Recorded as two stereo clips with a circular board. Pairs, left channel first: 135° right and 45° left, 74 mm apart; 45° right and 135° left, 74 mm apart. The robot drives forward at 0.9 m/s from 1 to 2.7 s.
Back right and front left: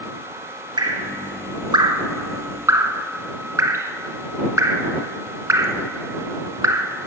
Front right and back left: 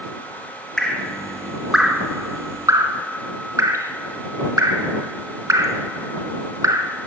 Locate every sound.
0.8 s dripping: 35° left, 1.8 m; by 6.9 s 95° left, 1.0 m